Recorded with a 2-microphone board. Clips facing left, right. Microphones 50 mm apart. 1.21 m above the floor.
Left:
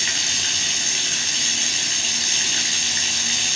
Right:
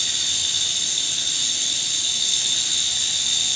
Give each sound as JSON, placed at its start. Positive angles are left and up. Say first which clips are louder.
{"t": 0.0, "sound": "running water", "louder": "left 3 dB", "side_deg": 65, "distance_m": 4.5}